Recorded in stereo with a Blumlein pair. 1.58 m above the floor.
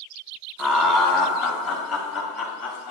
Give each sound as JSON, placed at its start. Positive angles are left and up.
{"t": 0.6, "sound": "laughter", "azimuth_deg": 20, "distance_m": 2.5}